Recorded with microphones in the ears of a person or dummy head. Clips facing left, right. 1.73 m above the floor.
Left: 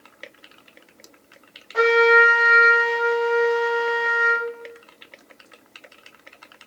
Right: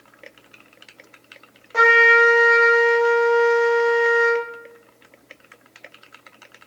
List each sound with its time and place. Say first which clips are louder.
1.7 s a trumpet: left 2 dB; 70° right (ahead or behind), 1.2 m